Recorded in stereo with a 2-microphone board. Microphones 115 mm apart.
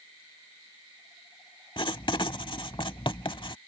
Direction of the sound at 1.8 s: 50° left (ahead or behind).